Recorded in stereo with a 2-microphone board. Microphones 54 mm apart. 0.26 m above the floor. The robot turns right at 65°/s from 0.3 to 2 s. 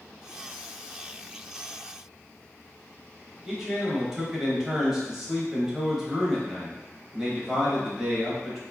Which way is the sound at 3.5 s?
10° right (ahead or behind).